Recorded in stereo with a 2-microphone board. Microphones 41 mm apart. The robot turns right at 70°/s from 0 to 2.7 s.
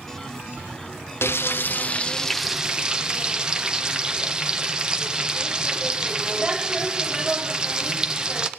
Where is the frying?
95° left, 0.8 m; by 8.5 s 160° right, 0.8 m.